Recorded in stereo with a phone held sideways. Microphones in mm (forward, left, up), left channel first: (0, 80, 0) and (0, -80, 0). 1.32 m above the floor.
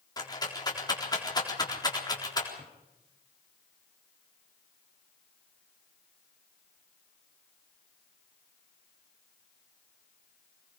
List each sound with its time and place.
0.2 s a rattle: 25° left (ahead or behind), 4 m
2.6 s a drawer: 40° right (ahead or behind), 4.5 m